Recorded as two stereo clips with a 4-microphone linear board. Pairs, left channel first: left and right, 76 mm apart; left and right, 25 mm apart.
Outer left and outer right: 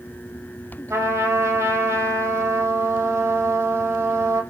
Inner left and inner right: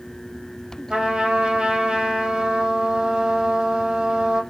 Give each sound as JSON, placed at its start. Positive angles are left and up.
{"t": 0.9, "sound": "a trumpet", "side_deg": -40, "distance_m": 5.0}